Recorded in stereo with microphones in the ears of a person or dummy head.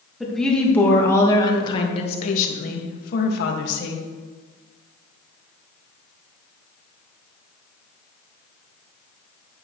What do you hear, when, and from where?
0.2 s a woman speaking: 5° right (ahead or behind), 2 m; by 4.0 s 65° left (ahead or behind), 2 m